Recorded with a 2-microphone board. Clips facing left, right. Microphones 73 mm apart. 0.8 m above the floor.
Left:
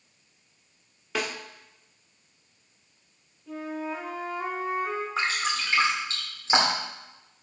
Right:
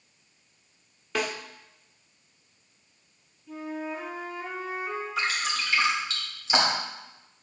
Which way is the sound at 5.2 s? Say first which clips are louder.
Even; 35° left (ahead or behind).